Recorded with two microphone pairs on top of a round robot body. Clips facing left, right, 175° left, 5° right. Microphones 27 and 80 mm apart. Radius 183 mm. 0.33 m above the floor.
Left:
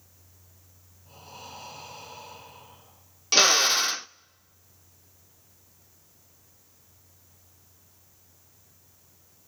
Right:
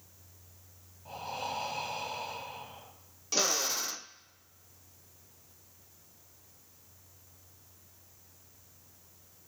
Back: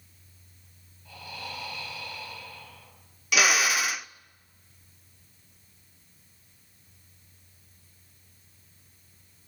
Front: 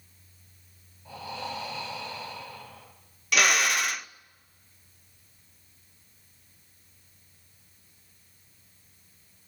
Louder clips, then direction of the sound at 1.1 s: Right 8 dB, front 5 dB; 75° right.